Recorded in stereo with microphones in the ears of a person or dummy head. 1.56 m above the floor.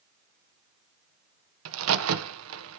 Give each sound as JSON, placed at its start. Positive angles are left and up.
{"t": 1.6, "sound": "a crack", "side_deg": -85, "distance_m": 1.2}